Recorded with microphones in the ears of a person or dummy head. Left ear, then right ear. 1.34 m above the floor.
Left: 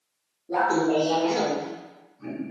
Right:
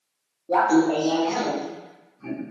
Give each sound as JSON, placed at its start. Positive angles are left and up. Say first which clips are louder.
{"t": 0.5, "sound": "laughter", "louder": "right 3 dB", "side_deg": -30, "distance_m": 0.5}